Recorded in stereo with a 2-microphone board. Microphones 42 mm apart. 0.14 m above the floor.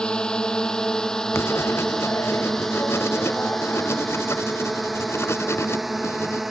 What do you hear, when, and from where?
0.0 s a drone: 20° left (ahead or behind); by 6.5 s 5° right (ahead or behind)
1.3 s writing: 85° left